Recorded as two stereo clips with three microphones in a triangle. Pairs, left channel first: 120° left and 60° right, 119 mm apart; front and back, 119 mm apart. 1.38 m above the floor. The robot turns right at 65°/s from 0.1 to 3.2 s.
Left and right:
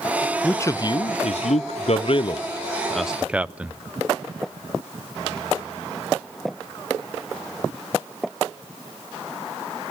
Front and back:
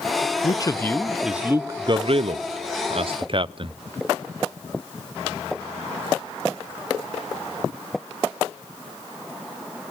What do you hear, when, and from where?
0.4 s a man speaking: 40° left, 0.6 m; by 3.8 s 140° right, 0.6 m